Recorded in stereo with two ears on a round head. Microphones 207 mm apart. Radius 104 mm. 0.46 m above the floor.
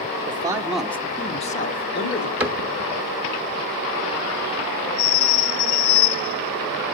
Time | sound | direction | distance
0.3 | a man speaking | 25° right (ahead or behind) | 0.9 m
2.4 | a cupboard door | 5° right (ahead or behind) | 1.0 m